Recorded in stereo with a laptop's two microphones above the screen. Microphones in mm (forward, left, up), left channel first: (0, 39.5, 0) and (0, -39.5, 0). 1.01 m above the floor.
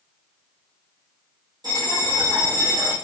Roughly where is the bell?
Right.